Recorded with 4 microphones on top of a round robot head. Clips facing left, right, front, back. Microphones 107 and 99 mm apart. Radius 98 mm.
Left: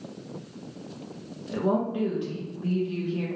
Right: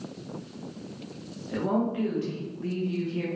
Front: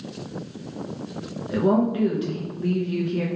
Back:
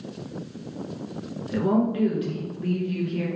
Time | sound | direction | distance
1.5 | a woman speaking | 35° left | 1.0 m